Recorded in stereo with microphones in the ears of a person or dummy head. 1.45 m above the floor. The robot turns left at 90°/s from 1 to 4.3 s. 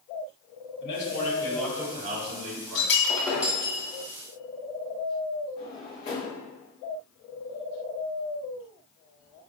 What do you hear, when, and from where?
0.8 s a man speaking: 65° left, 1.4 m; by 3.0 s 115° right, 1.4 m
2.8 s breaking glass: 55° left, 1.8 m; by 3.8 s 40° right, 1.8 m
5.6 s a drawer: 25° left (ahead or behind), 1.9 m